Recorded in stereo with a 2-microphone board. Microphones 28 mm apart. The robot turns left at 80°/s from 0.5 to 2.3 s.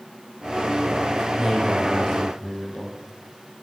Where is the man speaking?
160° right, 4 m; by 3.0 s 125° left, 4 m.